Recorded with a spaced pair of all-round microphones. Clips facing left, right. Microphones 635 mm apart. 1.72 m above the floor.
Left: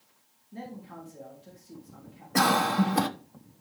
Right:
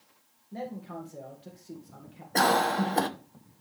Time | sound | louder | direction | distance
0.5 | a man speaking | right 4 dB | 80° right | 2.5 m
2.4 | a cough | left 1 dB | 35° left (ahead or behind) | 1.2 m